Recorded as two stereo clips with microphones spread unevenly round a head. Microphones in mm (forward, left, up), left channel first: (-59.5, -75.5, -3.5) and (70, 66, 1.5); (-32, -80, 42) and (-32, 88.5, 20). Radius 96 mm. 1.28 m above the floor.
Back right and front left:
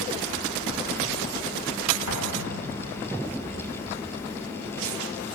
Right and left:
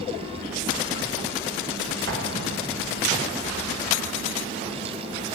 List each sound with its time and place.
2.1 s an explosion: 55° left, 1.9 m